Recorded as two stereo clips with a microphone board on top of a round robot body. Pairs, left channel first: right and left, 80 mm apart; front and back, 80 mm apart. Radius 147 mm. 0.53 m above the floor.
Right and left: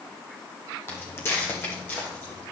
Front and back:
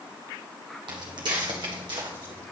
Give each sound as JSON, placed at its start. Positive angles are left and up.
{"t": 0.9, "sound": "footsteps", "azimuth_deg": -150, "distance_m": 1.4}